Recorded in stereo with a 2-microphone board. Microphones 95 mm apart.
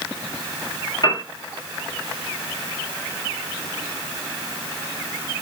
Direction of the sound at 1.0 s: 50° left (ahead or behind).